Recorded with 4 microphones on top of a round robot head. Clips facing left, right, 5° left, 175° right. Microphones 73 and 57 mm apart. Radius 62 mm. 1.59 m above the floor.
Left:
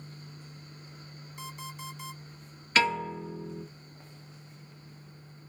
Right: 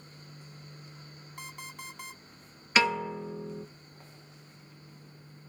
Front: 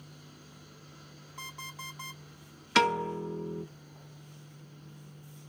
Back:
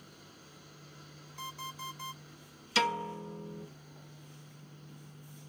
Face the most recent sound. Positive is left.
turn(degrees=-20)